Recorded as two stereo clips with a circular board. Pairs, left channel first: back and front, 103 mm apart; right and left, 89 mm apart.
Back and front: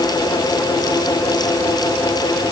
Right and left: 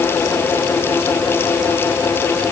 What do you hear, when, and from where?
Only background noise.